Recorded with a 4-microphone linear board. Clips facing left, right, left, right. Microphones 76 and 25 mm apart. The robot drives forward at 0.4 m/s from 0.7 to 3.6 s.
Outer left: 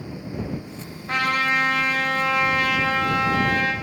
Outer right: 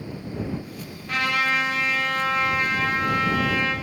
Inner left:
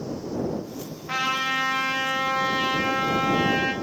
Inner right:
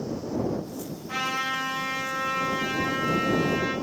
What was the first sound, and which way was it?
A trumpet, 35° left (ahead or behind).